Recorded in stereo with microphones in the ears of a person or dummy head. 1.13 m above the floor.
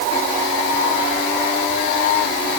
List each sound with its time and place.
Only background noise.